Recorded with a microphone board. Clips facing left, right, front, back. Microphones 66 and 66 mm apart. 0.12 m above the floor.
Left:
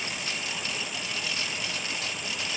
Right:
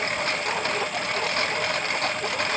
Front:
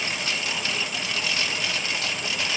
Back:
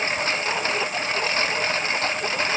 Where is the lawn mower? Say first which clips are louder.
Right 8 dB, back 5 dB; 125° right.